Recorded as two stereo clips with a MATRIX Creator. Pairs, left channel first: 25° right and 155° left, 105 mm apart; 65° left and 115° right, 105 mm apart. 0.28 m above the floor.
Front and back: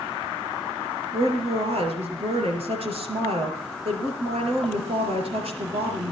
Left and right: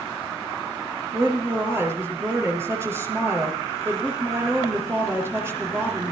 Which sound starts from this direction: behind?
A woman speaking, at 1.1 s.